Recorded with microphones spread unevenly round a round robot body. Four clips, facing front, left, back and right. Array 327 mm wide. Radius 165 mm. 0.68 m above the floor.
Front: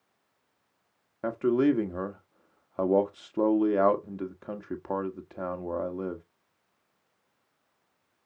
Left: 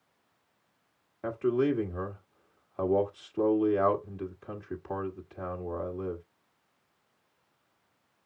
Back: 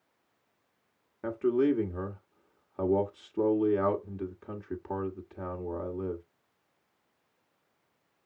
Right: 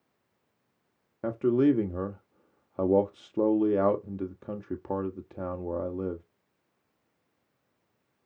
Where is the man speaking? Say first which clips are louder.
Right 4 dB, front 2 dB; 75° right, 1.5 m.